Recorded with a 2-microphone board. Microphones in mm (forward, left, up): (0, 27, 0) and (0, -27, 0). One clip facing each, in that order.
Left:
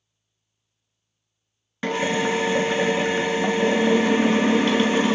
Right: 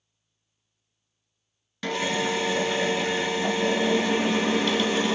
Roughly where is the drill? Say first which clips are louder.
Left 4 dB; left.